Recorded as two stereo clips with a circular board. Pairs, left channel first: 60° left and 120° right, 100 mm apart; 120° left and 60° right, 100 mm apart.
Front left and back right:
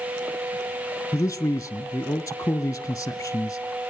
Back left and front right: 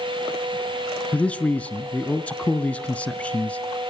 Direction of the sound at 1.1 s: 60° left.